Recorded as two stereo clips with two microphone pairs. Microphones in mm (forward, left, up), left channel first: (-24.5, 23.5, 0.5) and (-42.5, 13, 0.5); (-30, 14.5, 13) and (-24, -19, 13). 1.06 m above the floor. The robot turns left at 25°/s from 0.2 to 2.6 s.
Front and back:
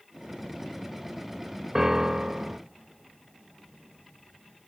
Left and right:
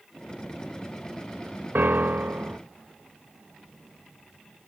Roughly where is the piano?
Right.